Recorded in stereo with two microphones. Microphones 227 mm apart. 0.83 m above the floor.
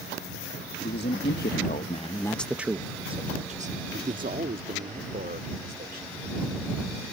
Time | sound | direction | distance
0.8 | a man speaking | 50° left (ahead or behind) | ?